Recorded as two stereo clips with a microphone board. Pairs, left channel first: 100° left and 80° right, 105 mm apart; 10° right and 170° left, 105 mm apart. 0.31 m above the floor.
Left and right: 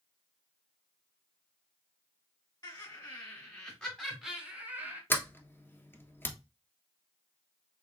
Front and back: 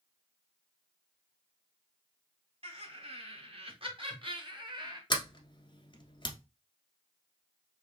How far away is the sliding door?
About 1.0 m.